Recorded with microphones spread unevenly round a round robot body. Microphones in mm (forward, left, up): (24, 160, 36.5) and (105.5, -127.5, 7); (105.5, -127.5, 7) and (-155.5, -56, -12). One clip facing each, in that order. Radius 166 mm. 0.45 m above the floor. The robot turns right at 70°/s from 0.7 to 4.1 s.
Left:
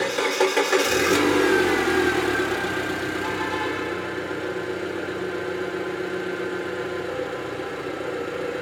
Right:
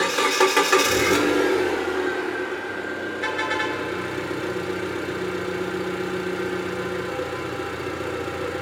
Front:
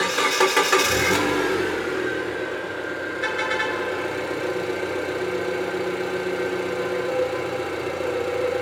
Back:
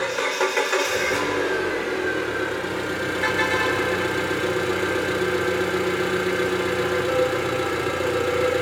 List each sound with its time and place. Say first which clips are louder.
0.0 s an engine running: right 1 dB, front 2 dB; 20° right, 0.8 m; by 8.6 s 140° right, 0.8 m
3.2 s a car horn: left 1 dB, back 3 dB; 105° right, 2.5 m; by 3.8 s 60° right, 2.5 m